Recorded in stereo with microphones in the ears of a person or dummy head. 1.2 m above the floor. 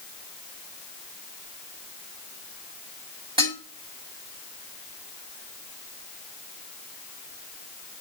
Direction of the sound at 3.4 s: 25° right (ahead or behind).